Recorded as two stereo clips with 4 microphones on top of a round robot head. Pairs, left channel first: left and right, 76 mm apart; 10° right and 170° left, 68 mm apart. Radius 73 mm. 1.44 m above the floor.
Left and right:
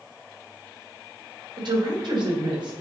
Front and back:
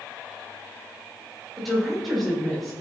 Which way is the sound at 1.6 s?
105° right.